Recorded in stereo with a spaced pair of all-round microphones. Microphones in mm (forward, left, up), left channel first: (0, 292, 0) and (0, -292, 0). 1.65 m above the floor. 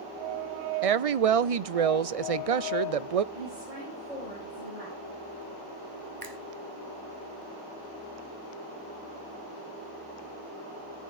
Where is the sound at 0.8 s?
70° right (ahead or behind), 0.6 m.